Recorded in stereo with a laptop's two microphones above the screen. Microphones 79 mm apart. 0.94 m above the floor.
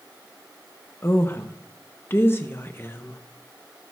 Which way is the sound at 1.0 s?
30° left (ahead or behind).